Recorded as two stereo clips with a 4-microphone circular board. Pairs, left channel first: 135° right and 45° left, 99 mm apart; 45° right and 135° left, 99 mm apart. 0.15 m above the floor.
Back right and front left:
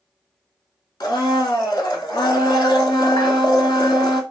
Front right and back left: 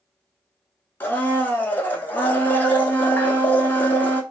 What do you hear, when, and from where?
1.0 s a blender: 110° right, 0.5 m